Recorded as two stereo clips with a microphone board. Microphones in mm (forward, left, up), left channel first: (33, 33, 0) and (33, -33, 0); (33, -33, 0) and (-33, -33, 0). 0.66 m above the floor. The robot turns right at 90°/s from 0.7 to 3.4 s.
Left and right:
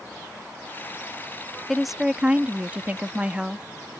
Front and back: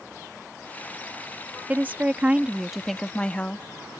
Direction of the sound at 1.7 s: 170° left.